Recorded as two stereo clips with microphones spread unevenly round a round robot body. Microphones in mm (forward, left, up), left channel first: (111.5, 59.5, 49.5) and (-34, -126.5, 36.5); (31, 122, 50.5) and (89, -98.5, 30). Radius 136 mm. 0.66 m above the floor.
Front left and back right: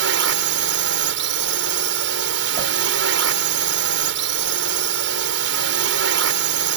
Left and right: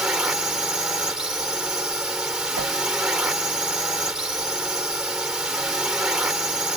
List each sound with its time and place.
0.0 s a drone: 160° right
2.6 s a whoosh: 75° right